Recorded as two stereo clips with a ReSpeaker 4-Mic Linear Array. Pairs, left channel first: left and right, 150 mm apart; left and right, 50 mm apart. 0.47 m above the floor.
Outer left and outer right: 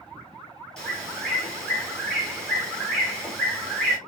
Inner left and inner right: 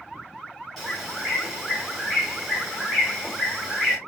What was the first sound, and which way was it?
A bird, 5° left (ahead or behind).